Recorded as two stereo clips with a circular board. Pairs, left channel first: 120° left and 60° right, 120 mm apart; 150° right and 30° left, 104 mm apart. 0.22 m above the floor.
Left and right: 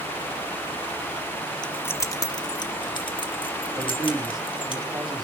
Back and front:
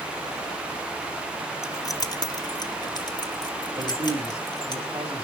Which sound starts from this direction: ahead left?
A man speaking, at 3.8 s.